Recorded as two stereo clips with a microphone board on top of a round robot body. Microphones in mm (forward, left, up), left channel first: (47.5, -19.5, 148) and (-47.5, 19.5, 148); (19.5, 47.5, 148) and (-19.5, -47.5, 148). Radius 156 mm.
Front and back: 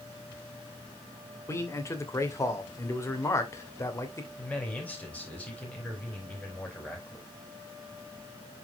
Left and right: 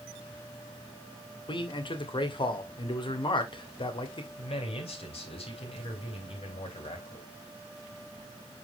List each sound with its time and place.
1.5 s a man speaking: 35° left, 2.5 m
4.4 s a man speaking: 55° left, 5 m